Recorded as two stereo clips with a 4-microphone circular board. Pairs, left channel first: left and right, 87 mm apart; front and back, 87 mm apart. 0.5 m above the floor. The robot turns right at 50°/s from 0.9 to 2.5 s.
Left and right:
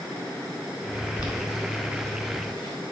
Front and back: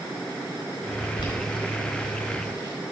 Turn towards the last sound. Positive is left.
turn(degrees=50)